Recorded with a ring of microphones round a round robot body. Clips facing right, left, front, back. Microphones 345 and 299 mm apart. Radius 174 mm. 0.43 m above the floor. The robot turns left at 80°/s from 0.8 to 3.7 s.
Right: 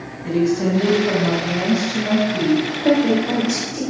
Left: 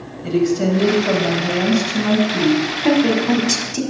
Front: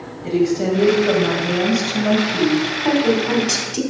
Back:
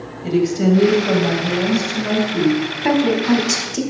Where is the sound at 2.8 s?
170° left, 1.6 m; by 3.8 s 100° left, 1.6 m.